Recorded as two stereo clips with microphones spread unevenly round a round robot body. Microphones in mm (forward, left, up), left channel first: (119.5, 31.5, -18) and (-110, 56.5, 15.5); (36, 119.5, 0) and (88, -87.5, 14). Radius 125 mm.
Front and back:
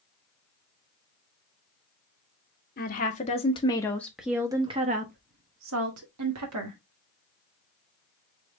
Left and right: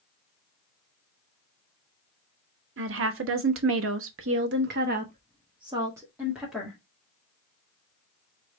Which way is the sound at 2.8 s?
55° right.